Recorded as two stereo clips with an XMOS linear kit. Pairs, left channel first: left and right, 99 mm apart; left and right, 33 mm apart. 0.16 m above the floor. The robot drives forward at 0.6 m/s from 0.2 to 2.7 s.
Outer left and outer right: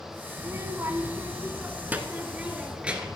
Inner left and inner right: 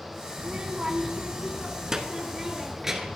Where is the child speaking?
30° right (ahead or behind), 0.7 m; by 3.2 s 15° right (ahead or behind), 1.4 m.